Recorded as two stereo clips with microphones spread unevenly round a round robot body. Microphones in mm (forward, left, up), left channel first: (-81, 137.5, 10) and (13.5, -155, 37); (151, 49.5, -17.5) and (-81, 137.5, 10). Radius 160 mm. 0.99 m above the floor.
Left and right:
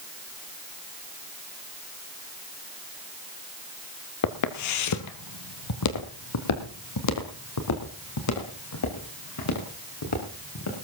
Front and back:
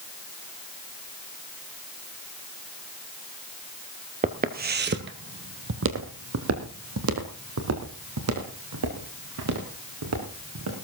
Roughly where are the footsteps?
Behind left.